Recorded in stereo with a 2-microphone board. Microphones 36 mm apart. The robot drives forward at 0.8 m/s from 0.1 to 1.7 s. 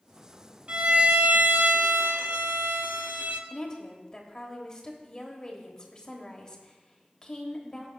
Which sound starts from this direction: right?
A violin, at 0.7 s.